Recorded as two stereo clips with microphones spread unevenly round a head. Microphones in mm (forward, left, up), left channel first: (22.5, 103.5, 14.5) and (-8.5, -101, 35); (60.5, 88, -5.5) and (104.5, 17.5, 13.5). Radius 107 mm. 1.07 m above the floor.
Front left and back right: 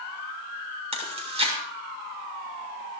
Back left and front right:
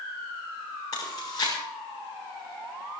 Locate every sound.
0.9 s chewing: 160° right, 6.5 m